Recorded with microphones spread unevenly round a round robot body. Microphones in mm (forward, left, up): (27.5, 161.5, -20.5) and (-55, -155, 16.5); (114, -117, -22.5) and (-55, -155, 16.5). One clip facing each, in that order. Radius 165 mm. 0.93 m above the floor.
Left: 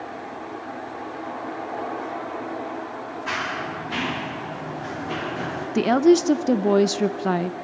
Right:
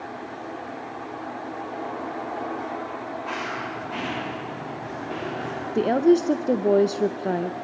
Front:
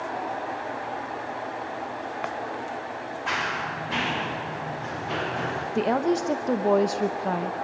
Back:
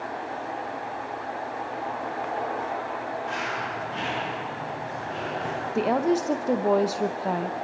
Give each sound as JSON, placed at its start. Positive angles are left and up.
{"t": 3.3, "sound": "running footsteps", "azimuth_deg": 25, "distance_m": 7.5}
{"t": 5.8, "sound": "a woman speaking", "azimuth_deg": 90, "distance_m": 0.5}